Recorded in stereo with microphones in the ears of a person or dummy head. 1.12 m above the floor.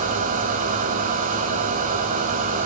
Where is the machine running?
40° right (ahead or behind), 3 m.